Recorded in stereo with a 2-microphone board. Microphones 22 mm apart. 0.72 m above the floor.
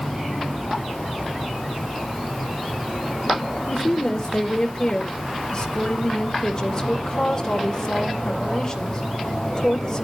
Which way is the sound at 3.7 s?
25° left (ahead or behind).